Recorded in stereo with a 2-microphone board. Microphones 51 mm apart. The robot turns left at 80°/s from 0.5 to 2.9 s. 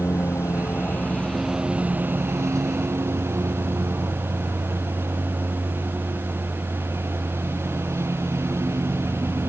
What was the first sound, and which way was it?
A lawn mower, 80° left.